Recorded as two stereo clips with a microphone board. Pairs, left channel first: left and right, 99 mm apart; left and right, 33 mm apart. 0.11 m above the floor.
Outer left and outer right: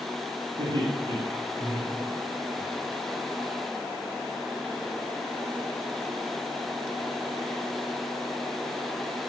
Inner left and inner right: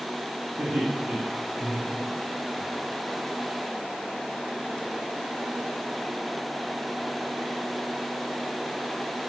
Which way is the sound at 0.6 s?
55° right (ahead or behind).